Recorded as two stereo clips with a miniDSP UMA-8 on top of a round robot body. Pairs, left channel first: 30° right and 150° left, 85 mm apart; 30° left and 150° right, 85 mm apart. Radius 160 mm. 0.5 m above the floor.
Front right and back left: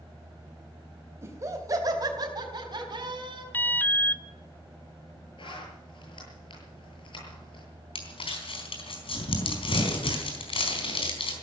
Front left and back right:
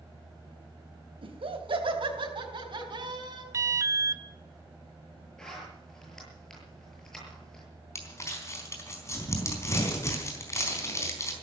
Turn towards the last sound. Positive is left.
turn(degrees=-25)